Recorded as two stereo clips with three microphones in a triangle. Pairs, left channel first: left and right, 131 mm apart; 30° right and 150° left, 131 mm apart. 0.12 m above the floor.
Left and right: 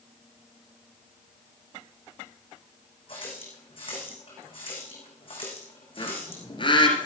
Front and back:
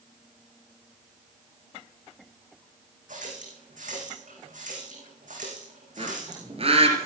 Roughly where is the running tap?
Behind left.